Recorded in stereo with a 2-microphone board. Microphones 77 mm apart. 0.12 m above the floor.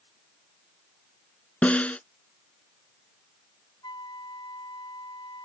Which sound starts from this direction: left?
A flute, at 3.8 s.